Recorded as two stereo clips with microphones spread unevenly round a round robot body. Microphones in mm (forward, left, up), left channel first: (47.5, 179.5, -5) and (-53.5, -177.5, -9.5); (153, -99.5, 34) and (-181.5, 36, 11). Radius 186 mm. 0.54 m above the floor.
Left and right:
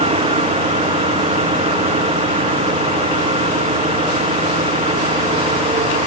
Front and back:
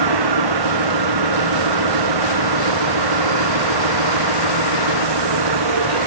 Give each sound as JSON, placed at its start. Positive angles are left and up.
{"t": 0.0, "sound": "an engine running", "azimuth_deg": 180}